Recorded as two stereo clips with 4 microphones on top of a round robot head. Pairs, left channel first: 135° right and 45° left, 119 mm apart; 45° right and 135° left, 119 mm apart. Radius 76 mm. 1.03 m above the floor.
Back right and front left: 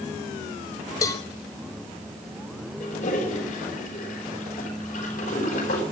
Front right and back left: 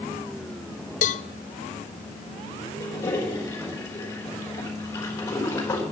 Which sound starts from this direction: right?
A cowbell, at 1.0 s.